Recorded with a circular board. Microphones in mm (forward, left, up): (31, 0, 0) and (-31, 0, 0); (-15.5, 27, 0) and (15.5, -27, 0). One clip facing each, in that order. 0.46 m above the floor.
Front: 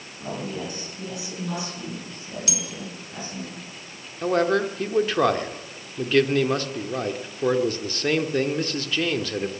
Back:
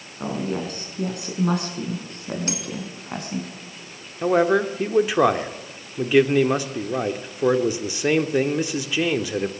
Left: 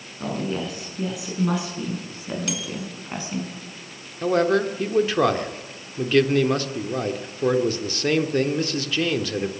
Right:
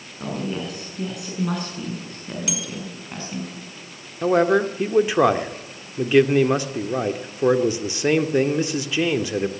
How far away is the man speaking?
About 1.2 m.